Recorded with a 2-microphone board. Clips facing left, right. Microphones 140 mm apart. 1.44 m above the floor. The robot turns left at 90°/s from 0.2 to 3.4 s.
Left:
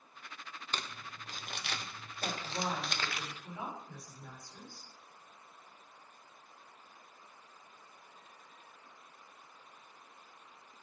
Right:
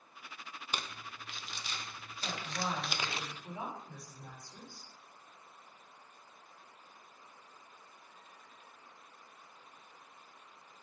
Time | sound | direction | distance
0.7 | crumpling | 10° right (ahead or behind) | 0.7 m
2.2 | a woman speaking | 85° left | 4 m